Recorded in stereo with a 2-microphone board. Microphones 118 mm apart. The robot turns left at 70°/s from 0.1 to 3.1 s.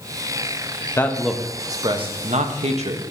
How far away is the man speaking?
About 0.8 m.